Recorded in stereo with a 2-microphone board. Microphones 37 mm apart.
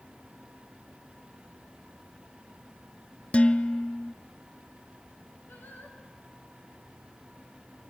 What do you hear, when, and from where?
3.3 s dishes clattering: 35° left (ahead or behind), 0.7 m
5.5 s singing: 65° left (ahead or behind), 4 m